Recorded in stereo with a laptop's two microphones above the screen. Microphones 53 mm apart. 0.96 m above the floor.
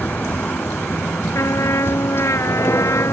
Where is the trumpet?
65° left (ahead or behind).